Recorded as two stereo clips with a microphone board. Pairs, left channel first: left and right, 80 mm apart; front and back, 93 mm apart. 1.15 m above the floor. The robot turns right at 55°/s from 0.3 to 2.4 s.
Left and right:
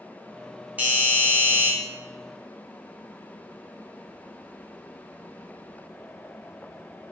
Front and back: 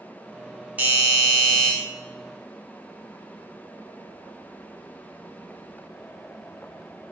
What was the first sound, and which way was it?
A doorbell, 135° right.